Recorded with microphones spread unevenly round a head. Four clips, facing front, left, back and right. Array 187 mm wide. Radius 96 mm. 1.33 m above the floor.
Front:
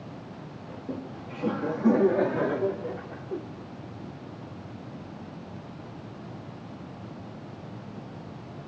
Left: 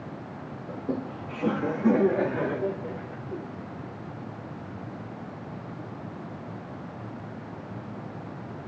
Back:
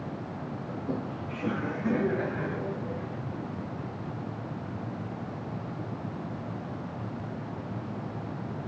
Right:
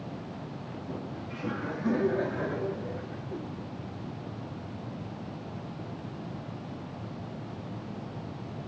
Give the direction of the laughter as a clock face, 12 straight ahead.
9 o'clock.